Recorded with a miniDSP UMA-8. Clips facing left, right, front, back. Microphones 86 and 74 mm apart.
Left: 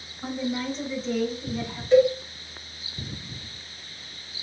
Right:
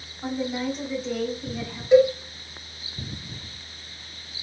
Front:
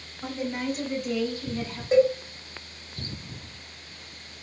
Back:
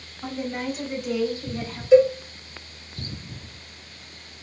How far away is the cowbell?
About 1.9 m.